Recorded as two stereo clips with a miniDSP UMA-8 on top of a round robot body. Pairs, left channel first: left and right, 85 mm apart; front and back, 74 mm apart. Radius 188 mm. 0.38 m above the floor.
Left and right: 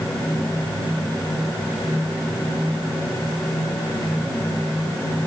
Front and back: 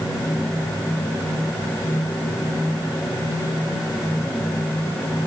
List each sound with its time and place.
Only background noise.